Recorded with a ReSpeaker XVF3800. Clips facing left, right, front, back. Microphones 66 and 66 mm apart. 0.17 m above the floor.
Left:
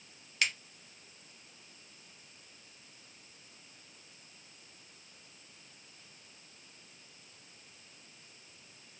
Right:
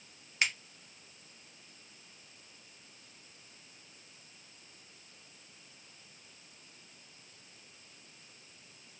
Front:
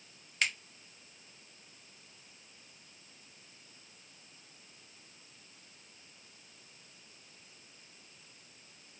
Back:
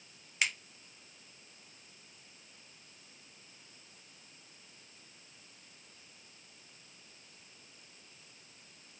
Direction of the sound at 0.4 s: 110° right.